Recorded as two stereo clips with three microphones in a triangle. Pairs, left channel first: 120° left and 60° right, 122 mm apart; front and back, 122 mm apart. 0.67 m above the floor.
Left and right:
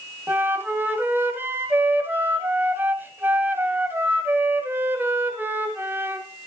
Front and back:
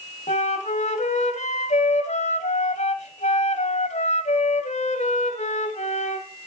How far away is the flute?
About 2.5 m.